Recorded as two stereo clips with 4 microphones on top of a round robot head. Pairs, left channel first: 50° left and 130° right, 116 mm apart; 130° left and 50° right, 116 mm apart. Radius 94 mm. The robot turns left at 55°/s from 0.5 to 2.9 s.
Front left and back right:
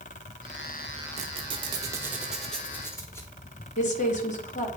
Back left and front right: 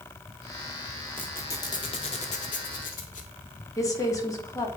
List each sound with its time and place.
1.2 s a squeak: 150° right, 0.6 m; by 3.3 s 115° left, 0.6 m
3.8 s a woman speaking: 65° left, 1.4 m